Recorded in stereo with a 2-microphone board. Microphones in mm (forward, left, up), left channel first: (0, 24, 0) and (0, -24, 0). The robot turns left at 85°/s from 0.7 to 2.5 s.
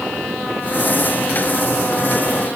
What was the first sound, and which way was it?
Only background noise.